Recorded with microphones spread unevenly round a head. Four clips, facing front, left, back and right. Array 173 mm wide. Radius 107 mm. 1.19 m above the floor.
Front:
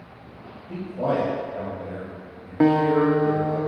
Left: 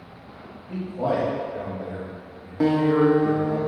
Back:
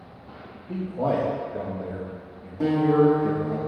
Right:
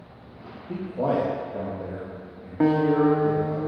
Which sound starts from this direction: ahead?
A guitar, at 2.6 s.